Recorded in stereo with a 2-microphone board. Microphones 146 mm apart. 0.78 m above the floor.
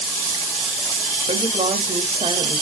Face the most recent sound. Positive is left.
turn(degrees=-40)  # may be behind; listen again after turning